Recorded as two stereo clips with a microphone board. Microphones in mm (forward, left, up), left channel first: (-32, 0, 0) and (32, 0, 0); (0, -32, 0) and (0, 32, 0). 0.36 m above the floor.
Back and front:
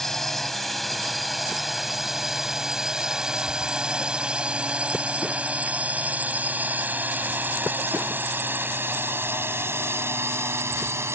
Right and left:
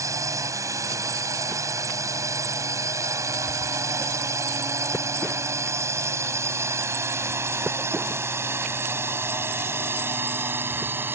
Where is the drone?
95° left; by 11.2 s 40° left.